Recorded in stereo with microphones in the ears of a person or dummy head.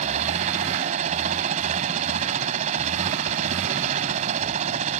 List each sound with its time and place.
0.0 s a helicopter: 40° right (ahead or behind)